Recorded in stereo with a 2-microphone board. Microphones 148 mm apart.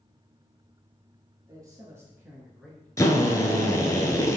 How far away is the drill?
About 0.8 m.